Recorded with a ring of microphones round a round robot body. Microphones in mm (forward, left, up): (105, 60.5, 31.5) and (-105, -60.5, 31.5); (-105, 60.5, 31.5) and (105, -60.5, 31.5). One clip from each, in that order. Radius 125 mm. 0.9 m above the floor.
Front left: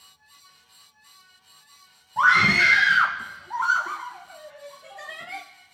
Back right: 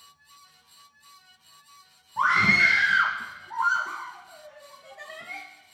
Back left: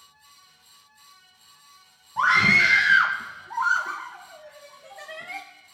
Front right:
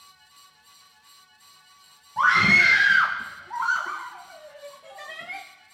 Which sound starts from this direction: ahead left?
A scream, at 2.2 s.